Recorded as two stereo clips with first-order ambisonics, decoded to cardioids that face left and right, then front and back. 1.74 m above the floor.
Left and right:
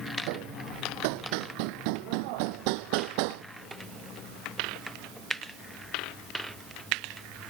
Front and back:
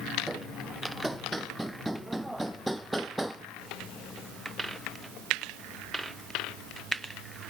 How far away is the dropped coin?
No dropped coin in this recording.